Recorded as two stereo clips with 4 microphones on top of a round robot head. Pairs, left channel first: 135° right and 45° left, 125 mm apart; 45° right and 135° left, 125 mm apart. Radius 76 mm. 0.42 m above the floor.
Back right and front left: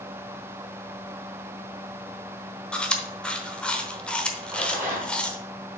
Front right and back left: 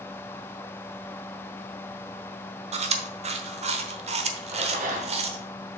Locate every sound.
2.7 s chewing: 145° left, 1.0 m
4.5 s a rattle: 115° left, 3.5 m